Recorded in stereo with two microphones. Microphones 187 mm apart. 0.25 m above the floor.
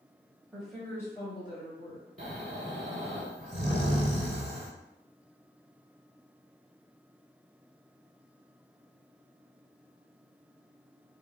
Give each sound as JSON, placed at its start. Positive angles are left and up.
{"t": 0.5, "sound": "a woman speaking", "side_deg": -10, "distance_m": 0.9}
{"t": 2.2, "sound": "snoring", "side_deg": -50, "distance_m": 0.7}